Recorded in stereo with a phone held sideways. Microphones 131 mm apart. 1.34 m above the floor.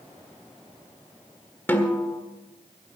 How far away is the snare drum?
About 1.5 m.